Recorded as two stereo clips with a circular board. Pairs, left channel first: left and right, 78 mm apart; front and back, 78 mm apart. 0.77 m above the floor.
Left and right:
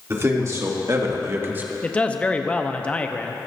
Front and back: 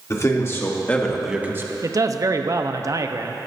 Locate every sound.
0.1 s a man speaking: 40° right, 2 m; by 1.7 s 155° right, 1.2 m
1.8 s a man speaking: 160° left, 0.7 m